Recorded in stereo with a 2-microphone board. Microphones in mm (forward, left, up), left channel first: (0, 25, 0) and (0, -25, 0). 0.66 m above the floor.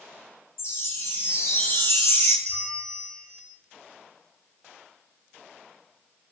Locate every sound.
0.6 s a chime: 65° left (ahead or behind), 0.6 m
2.5 s a bell: 15° left (ahead or behind), 1.1 m